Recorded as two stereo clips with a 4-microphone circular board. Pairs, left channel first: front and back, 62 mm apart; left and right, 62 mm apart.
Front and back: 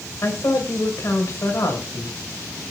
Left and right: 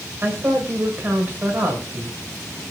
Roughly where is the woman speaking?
Ahead right.